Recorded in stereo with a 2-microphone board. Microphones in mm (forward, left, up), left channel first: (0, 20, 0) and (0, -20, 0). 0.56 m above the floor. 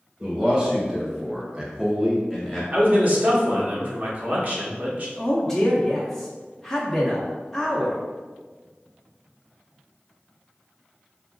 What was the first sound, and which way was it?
A man speaking, 25° right (ahead or behind).